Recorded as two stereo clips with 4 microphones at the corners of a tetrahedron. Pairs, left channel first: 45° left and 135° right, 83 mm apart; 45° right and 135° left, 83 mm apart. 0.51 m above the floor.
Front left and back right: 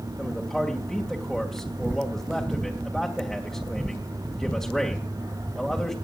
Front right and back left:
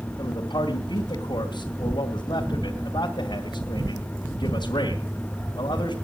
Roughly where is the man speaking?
Ahead right.